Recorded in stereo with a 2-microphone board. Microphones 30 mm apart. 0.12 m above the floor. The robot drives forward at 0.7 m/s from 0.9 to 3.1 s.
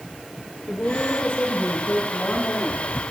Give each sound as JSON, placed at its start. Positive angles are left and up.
{"t": 0.7, "sound": "a woman speaking", "side_deg": 75, "distance_m": 4.5}